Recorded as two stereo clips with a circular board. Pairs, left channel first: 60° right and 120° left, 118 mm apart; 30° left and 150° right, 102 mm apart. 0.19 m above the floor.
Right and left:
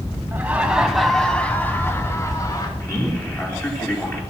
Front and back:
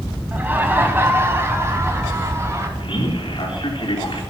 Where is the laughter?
165° left, 1.3 m; by 2.7 s 100° right, 1.8 m.